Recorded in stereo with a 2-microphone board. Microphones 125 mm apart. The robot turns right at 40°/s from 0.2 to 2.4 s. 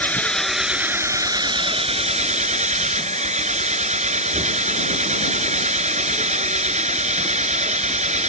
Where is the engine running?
170° left; by 8.3 s 105° right.